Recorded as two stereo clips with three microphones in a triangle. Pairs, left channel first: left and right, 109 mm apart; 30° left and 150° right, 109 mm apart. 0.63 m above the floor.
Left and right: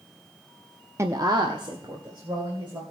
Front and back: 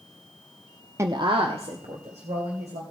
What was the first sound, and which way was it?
A woman speaking, 120° right.